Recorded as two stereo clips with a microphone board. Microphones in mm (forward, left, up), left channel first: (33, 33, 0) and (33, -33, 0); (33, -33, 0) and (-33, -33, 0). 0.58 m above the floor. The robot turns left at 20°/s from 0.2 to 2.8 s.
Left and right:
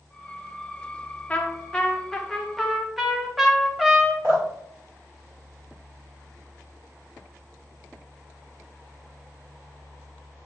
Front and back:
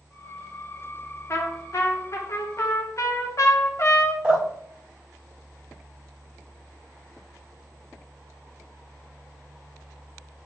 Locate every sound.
1.3 s a trumpet: 25° left, 0.6 m; by 4.1 s 5° right, 0.6 m
4.2 s dripping: 110° right, 2 m